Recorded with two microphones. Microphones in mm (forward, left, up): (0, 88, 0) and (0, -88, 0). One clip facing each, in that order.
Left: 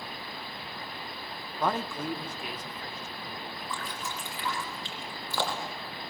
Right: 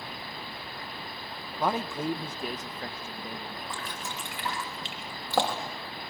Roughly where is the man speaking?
Centre.